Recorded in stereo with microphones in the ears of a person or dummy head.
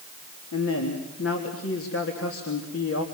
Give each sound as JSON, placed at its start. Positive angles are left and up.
{"t": 0.5, "sound": "a man speaking", "side_deg": 85, "distance_m": 3.0}